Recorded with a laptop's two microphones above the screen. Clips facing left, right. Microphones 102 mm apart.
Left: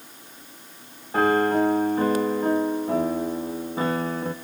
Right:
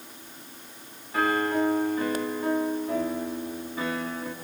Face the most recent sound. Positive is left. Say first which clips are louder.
# left 5 dB
turn(degrees=40)  # may be behind; listen again after turning